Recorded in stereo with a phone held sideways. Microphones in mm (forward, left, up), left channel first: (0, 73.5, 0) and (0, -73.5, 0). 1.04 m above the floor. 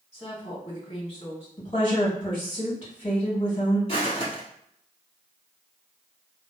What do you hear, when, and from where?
0.1 s a woman speaking: 40° left (ahead or behind), 1.7 m
1.6 s a woman speaking: 35° left (ahead or behind), 1.7 m
3.9 s footsteps: 35° left (ahead or behind), 1.8 m